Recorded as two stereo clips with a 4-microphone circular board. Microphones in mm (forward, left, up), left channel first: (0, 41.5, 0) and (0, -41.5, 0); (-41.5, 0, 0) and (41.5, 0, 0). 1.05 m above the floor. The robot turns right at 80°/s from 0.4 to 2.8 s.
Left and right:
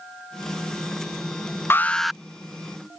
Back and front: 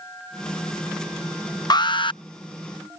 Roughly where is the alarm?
Behind left.